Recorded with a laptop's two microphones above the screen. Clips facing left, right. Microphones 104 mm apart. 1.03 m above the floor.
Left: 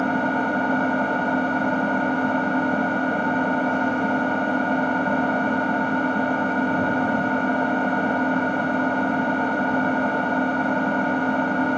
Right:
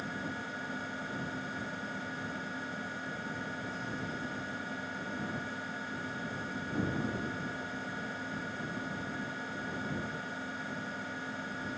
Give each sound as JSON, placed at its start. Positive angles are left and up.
{"t": 0.0, "sound": "an engine running", "side_deg": 75}